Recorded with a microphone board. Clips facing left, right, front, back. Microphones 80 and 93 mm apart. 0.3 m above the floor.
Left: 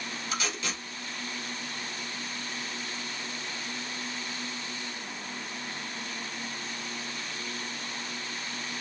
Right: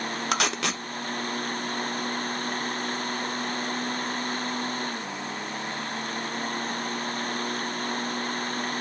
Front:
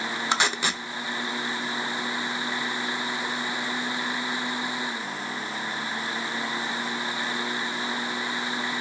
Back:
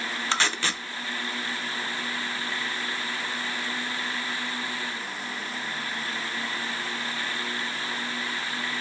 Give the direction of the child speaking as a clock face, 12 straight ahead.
No child speaking in this recording.